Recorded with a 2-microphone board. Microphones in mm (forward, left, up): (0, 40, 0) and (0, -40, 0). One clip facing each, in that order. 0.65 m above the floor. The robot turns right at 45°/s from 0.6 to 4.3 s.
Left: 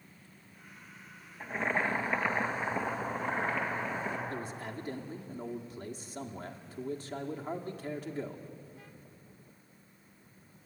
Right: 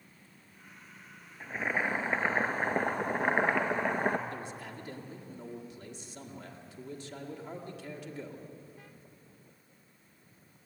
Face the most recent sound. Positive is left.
turn(degrees=40)  # may be behind; listen again after turning